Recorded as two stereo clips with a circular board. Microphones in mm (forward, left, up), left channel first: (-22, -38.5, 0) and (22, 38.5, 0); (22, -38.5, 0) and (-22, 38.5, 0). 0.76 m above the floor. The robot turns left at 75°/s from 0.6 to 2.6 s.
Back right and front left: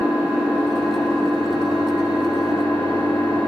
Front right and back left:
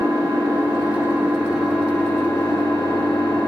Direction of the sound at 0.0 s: 110° left.